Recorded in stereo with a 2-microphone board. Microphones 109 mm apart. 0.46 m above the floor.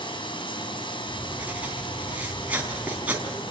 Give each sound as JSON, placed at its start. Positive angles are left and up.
{"t": 0.0, "sound": "running water", "side_deg": 50, "distance_m": 3.5}
{"t": 1.1, "sound": "writing", "side_deg": -15, "distance_m": 3.5}